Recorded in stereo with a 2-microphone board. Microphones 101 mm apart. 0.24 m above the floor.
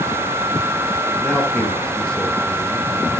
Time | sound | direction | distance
1.2 | a man speaking | 10° left (ahead or behind) | 6 m